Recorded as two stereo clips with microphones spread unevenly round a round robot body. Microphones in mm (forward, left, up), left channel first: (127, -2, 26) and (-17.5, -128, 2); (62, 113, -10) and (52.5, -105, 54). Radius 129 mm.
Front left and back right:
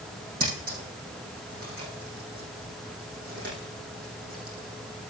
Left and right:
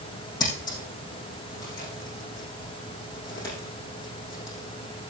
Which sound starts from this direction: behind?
Scissors, at 0.4 s.